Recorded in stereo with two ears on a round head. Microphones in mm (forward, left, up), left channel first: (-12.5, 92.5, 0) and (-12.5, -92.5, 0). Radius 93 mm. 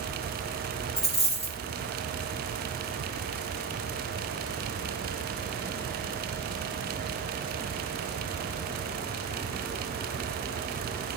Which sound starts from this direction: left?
A dropped coin, at 1.0 s.